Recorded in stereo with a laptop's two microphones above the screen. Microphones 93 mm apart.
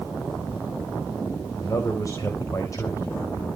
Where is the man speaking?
35° left (ahead or behind), 5 m.